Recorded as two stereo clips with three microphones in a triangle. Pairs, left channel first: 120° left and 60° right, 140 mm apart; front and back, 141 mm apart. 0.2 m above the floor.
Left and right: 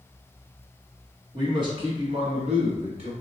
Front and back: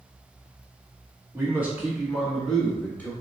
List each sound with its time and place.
1.3 s a man speaking: 110° right, 1.7 m; by 3.1 s 70° right, 1.6 m